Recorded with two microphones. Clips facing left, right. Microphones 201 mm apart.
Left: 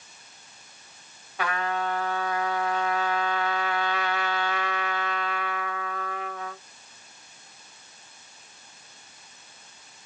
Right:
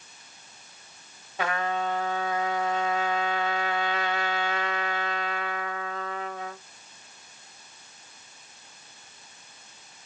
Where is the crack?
I don't hear a crack.